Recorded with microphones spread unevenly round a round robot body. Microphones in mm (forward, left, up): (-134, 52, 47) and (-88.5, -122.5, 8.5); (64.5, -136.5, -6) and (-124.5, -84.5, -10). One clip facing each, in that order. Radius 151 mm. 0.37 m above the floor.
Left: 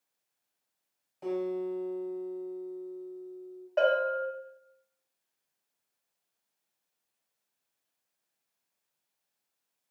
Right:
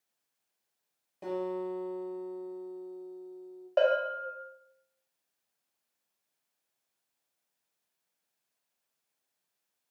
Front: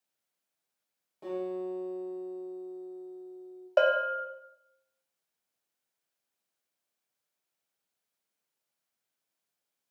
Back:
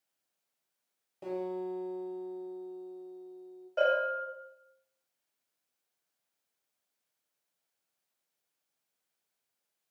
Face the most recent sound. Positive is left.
turn(degrees=-15)